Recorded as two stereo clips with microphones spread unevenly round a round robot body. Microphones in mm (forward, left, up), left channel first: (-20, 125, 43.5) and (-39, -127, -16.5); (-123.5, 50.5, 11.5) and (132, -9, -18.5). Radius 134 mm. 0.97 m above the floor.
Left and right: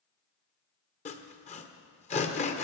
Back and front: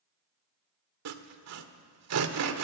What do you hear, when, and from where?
1.1 s sawing: 20° left, 1.4 m